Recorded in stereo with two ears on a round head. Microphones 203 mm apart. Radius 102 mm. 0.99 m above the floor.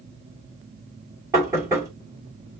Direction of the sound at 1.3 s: 15° right (ahead or behind).